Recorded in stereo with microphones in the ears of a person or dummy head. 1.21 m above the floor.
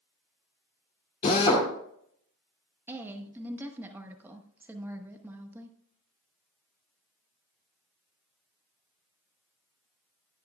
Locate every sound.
1.2 s a drill: 25° left (ahead or behind), 2.5 m
2.9 s a woman speaking: 20° right (ahead or behind), 1.2 m